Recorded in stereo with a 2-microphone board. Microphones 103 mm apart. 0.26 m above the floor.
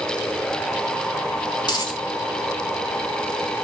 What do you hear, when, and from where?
1.6 s a dropped coin: 40° left (ahead or behind), 0.8 m